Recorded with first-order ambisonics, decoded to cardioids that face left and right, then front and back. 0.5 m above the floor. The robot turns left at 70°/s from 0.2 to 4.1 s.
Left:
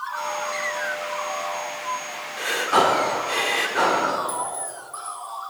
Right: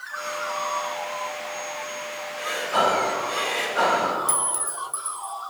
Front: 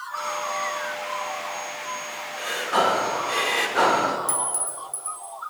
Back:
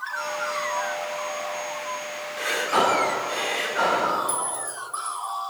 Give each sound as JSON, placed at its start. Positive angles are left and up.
{"t": 2.4, "sound": "breathing", "azimuth_deg": 125, "distance_m": 0.9}
{"t": 4.3, "sound": "a clink", "azimuth_deg": -55, "distance_m": 0.8}